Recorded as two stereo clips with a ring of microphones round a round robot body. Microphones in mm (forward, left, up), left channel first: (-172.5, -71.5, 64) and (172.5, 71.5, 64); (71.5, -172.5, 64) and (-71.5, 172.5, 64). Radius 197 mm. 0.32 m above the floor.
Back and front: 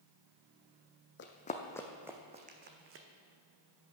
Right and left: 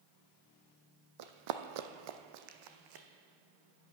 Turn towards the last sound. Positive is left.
turn(degrees=75)